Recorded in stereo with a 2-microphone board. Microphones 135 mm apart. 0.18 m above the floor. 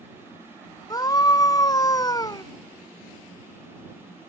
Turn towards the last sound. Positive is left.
turn(degrees=30)  # may be behind; listen again after turning